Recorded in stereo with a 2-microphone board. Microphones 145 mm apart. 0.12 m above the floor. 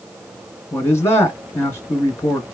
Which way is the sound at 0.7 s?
20° left (ahead or behind).